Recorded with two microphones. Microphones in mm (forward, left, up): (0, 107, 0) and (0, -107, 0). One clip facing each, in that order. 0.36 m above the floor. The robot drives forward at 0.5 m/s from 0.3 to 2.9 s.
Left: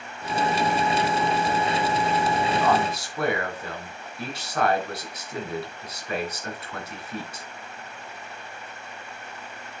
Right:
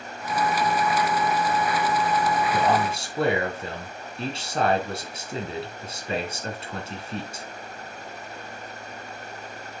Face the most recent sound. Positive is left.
turn(degrees=-25)  # may be behind; listen again after turning